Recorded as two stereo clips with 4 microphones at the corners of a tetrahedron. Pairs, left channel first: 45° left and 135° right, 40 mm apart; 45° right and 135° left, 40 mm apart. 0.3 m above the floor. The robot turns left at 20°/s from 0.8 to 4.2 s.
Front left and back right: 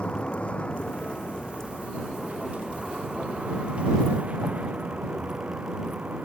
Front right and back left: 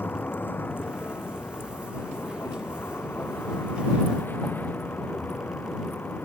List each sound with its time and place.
0.0 s a vehicle: 15° right; by 6.3 s 80° right